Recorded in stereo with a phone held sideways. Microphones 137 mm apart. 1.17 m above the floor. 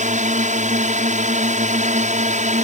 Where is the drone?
60° right (ahead or behind).